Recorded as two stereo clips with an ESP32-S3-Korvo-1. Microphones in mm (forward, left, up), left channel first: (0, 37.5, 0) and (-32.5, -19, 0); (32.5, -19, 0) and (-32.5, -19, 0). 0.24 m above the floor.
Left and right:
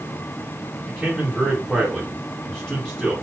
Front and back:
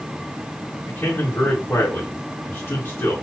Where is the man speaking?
10° right, 1.8 m.